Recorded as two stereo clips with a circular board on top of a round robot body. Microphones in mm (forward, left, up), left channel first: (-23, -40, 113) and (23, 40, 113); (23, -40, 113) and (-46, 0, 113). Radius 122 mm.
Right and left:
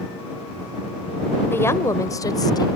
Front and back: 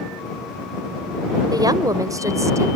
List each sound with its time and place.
1.5 s a woman speaking: 175° left; by 2.7 s 160° right